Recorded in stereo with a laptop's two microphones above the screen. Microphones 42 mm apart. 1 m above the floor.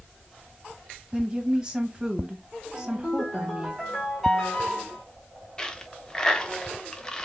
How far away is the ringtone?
About 1.5 m.